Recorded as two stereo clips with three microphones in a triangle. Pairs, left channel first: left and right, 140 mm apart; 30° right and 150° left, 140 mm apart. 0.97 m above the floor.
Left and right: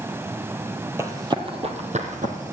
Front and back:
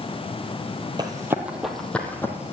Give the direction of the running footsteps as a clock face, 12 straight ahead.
5 o'clock.